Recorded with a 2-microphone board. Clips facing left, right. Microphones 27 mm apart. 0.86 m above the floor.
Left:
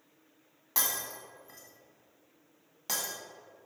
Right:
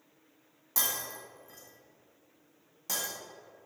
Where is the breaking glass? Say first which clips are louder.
Even; 30° left (ahead or behind), 2 m.